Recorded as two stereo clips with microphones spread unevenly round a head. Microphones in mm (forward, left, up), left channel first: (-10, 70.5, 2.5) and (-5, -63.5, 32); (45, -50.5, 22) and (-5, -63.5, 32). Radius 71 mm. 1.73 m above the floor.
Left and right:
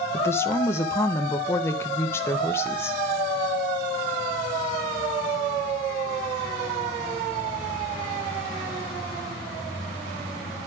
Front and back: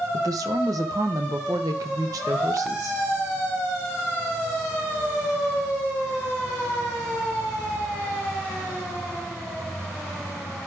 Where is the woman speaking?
170° left, 1.4 m.